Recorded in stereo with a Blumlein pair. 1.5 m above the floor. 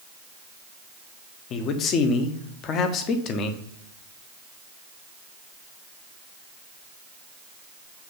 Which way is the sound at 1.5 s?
30° left.